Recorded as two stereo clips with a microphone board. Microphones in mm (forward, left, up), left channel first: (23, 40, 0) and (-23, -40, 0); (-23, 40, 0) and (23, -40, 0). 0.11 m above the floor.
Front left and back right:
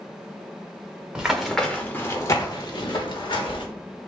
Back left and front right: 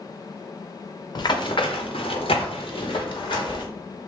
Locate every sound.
1.1 s running footsteps: 160° left, 0.9 m; by 3.6 s 85° left, 1.5 m